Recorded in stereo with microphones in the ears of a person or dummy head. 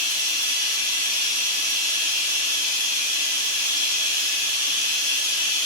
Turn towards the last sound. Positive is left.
turn(degrees=-50)  # may be behind; listen again after turning